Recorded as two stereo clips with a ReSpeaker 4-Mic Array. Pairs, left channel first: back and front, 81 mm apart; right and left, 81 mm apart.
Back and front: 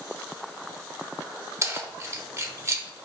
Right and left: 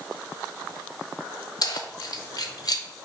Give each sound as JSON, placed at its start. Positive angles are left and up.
{"t": 1.6, "sound": "keys jangling", "azimuth_deg": -55, "distance_m": 0.8}